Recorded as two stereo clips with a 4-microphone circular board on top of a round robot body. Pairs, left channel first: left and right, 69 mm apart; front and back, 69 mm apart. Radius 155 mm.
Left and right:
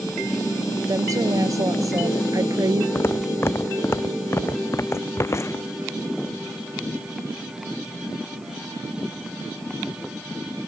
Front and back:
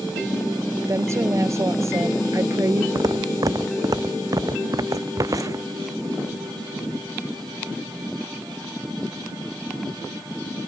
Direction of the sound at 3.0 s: 145° left.